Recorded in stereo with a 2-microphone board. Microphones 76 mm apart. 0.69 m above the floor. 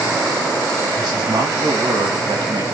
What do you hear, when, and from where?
0.9 s a man speaking: 80° right, 4 m